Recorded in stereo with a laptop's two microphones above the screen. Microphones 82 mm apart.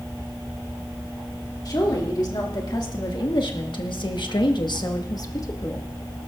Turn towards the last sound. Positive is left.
turn(degrees=35)  # may be behind; listen again after turning